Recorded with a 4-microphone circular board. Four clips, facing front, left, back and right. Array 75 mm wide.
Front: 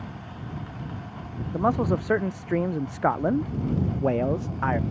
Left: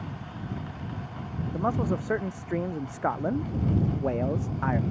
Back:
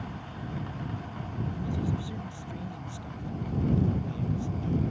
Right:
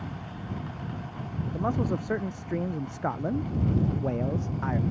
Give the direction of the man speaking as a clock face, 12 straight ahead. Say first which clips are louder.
Left 1 dB, front 12 dB; 12 o'clock.